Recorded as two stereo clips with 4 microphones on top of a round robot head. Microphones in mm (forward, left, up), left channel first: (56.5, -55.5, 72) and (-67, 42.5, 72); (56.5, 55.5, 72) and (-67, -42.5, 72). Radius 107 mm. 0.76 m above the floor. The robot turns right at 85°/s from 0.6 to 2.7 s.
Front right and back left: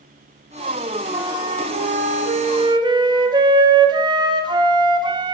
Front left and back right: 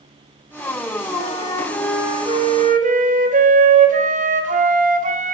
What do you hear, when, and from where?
1.1 s a flute: 65° left, 1.8 m; by 5.3 s 160° right, 1.8 m